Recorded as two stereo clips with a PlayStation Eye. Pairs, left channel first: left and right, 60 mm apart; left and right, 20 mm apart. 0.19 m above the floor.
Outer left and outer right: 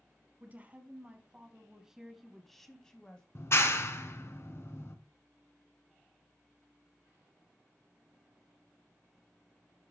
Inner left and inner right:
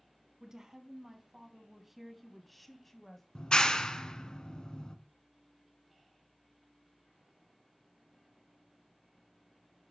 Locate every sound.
0.4 s a woman speaking: 30° right (ahead or behind), 1.5 m; by 3.2 s 15° left (ahead or behind), 1.2 m
3.4 s a clap: 50° left (ahead or behind), 1.2 m